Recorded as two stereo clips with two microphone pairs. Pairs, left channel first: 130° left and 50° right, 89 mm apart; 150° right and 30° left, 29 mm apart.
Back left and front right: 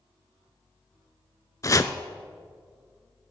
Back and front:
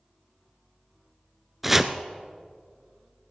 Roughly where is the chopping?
Left.